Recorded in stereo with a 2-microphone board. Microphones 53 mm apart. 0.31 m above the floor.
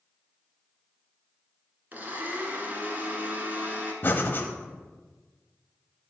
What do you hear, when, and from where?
1.9 s a blender: 30° right (ahead or behind), 1.1 m
4.0 s breathing: 40° left (ahead or behind), 0.8 m